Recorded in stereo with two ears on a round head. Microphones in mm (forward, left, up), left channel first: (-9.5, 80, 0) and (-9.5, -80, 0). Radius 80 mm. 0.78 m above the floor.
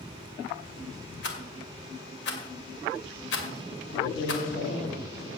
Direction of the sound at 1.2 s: 70° left (ahead or behind).